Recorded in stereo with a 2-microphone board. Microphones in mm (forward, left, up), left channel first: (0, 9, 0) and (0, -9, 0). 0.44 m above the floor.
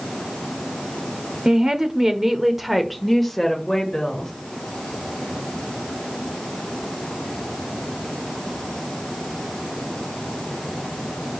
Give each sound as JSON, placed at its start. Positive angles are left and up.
{"t": 1.4, "sound": "a woman speaking", "side_deg": -40, "distance_m": 1.1}